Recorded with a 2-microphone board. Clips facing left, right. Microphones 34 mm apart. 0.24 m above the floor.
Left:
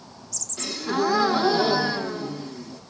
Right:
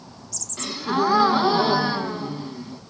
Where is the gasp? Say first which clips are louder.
Right 2 dB; 30° right (ahead or behind), 1.2 m.